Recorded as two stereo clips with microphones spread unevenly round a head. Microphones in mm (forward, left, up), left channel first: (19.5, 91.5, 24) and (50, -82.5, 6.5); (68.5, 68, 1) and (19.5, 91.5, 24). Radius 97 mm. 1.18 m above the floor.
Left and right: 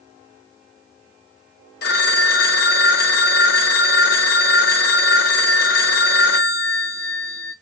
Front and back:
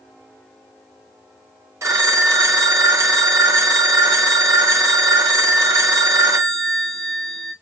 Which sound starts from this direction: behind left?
A phone ringing, at 1.8 s.